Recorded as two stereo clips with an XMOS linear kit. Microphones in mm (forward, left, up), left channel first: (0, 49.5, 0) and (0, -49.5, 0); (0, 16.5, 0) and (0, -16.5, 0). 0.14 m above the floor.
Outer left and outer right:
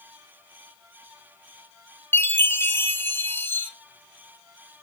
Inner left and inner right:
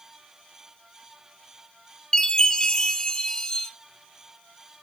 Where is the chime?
20° left (ahead or behind), 0.7 m.